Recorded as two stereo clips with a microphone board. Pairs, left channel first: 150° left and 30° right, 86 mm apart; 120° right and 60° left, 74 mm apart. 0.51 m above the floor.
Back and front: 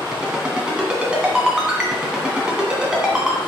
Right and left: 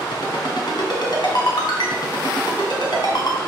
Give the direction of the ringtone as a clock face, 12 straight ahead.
4 o'clock.